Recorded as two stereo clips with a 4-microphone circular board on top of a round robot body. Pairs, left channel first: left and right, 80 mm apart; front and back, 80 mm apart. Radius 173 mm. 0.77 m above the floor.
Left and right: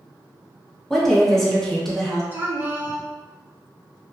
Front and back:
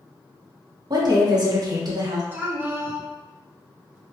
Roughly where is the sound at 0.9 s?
Behind.